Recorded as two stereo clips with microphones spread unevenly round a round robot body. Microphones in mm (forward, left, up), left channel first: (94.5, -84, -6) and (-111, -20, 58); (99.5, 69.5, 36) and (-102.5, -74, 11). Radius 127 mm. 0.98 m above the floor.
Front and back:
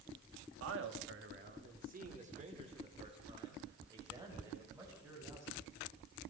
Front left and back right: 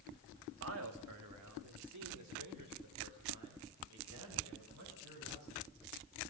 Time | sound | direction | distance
0.6 | a man speaking | 175° right | 2.5 m